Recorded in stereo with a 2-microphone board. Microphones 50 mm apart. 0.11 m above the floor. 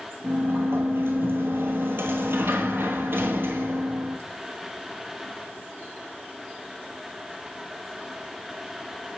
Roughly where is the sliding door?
Right.